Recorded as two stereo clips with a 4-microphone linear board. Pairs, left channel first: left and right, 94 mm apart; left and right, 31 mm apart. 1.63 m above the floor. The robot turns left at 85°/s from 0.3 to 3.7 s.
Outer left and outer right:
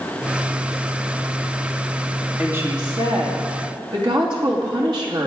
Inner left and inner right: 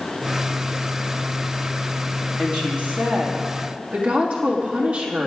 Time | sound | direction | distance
2.4 | a woman speaking | 15° right | 3 m